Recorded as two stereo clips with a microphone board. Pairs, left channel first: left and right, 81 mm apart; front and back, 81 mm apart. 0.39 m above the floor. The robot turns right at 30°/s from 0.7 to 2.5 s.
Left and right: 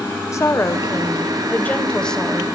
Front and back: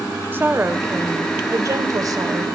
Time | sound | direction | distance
0.3 | a woman speaking | 125° left | 1.3 m